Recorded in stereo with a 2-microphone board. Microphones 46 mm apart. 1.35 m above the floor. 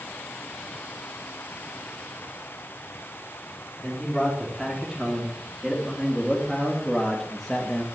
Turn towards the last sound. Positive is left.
turn(degrees=10)  # may be behind; listen again after turning